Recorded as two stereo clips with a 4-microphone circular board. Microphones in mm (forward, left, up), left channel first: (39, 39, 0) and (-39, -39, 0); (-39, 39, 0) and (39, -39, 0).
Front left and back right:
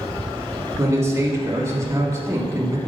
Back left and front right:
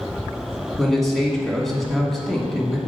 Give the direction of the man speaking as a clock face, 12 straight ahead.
5 o'clock.